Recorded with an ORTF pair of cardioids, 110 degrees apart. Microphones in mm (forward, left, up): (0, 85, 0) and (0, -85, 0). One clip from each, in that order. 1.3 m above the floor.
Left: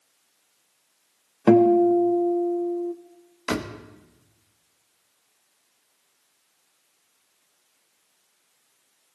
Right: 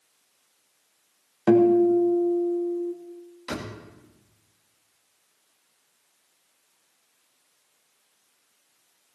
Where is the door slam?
45° left, 1.2 m.